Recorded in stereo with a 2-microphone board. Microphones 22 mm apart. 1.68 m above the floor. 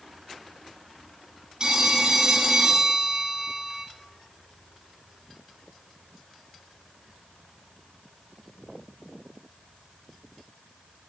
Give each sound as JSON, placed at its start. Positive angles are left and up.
{"t": 1.6, "sound": "a phone ringing", "side_deg": -35, "distance_m": 2.5}